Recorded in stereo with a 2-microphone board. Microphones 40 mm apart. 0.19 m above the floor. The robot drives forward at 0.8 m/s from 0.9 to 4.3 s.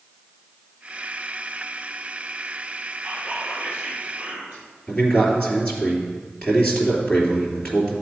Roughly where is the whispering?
Right.